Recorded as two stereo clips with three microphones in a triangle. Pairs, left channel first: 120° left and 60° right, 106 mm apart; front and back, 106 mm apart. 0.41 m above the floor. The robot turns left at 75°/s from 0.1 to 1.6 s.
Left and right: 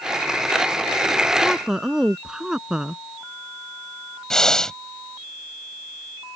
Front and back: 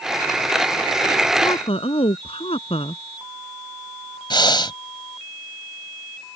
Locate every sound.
1.4 s a woman speaking: 40° left; by 3.0 s 25° left
4.3 s breathing: 35° left